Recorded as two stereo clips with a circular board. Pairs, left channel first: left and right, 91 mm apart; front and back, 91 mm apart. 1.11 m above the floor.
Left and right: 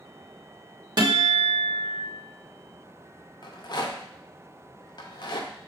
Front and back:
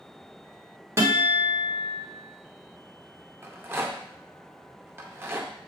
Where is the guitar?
125° right, 1.1 m.